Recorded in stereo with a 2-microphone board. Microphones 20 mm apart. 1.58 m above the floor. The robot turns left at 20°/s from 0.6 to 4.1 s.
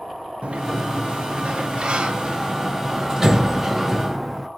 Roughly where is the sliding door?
Right.